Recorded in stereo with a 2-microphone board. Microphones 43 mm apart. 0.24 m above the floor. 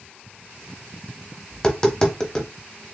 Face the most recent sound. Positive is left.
turn(degrees=20)  # may be behind; listen again after turning